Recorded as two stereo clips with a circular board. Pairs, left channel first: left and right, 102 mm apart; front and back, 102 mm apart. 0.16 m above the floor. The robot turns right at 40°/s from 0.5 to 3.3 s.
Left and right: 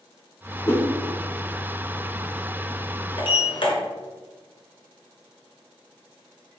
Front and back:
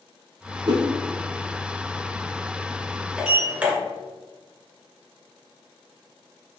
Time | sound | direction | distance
0.7 | a whoosh | 150° left | 0.7 m
3.2 | a sliding door | 100° left | 0.8 m